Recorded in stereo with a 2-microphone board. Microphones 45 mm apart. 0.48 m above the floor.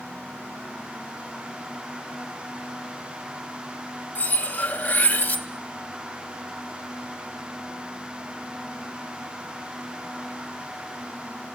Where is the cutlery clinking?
35° left (ahead or behind), 1.1 m.